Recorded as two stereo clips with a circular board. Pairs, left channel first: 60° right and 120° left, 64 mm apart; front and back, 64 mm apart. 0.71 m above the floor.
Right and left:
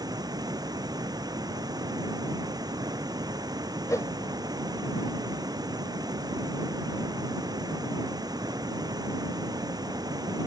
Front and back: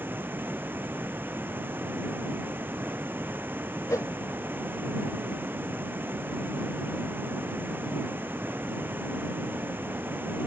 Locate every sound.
0.0 s running water: 120° left
3.9 s a whoosh: 30° right